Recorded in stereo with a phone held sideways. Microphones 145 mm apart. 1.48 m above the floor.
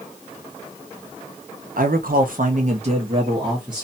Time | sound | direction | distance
1.8 | a man speaking | 70° right (ahead or behind) | 0.6 m